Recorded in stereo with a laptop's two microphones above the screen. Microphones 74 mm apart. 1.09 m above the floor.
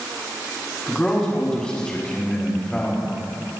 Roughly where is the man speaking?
Centre.